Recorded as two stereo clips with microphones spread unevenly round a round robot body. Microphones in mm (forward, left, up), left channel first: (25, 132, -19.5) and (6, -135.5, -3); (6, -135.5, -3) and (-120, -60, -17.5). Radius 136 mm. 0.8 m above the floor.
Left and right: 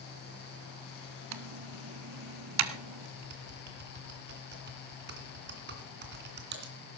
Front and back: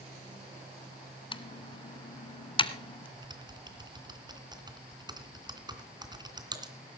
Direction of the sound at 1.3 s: 80° right.